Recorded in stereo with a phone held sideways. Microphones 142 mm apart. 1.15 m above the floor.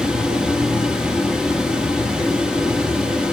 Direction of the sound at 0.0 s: 5° right (ahead or behind).